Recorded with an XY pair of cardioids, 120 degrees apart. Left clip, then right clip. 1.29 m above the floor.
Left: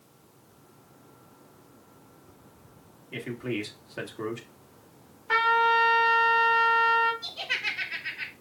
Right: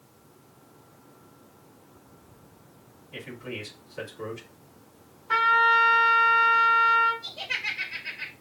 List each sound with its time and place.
3.1 s a man speaking: 60° left, 1.7 m
5.3 s a trumpet: 45° left, 1.9 m
7.2 s laughter: 60° left, 3.5 m